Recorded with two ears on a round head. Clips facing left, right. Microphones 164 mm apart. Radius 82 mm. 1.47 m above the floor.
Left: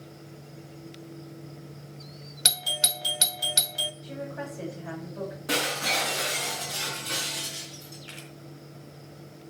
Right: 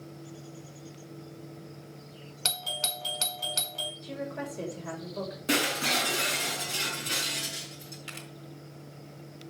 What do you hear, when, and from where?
2.5 s a doorbell: 15° left (ahead or behind), 0.8 m
4.0 s a woman speaking: 55° right (ahead or behind), 6 m
5.5 s breaking glass: 35° right (ahead or behind), 6 m
8.1 s a camera shutter: 70° right (ahead or behind), 3.5 m